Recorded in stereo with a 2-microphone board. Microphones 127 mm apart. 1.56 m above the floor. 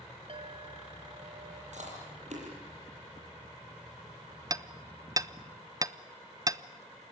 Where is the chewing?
65° right (ahead or behind), 9 m.